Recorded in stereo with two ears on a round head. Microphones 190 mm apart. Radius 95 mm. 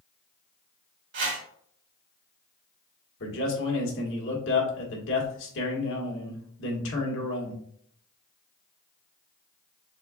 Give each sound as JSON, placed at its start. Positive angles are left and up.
{"t": 1.1, "sound": "a whoosh", "side_deg": -55, "distance_m": 2.0}
{"t": 3.2, "sound": "a man speaking", "side_deg": 60, "distance_m": 1.6}